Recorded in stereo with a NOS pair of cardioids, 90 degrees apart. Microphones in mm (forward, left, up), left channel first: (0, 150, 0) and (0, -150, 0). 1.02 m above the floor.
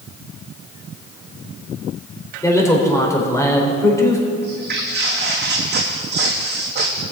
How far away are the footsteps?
About 3.5 m.